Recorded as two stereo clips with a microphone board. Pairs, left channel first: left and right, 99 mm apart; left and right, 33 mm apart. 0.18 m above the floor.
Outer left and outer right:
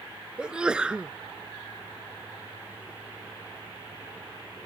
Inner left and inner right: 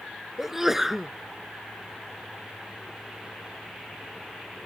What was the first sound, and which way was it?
A sneeze, 10° right (ahead or behind).